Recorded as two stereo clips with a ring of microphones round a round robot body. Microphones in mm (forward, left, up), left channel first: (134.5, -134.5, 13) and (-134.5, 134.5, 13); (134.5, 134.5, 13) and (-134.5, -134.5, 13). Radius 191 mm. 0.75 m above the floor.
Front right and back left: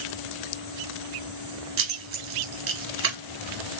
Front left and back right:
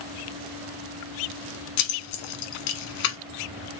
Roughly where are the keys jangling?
Left.